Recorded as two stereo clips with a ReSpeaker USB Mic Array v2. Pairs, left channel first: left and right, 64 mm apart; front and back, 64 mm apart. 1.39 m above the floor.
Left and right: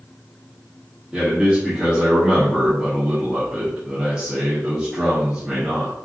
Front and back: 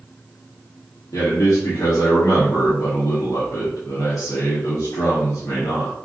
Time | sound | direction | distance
1.1 | a man speaking | 15° right | 1.3 m